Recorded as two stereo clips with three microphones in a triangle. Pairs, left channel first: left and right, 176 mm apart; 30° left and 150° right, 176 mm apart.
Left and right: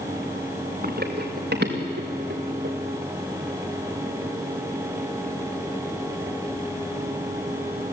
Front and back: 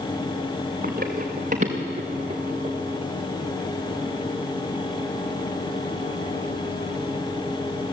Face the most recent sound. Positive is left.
turn(degrees=-85)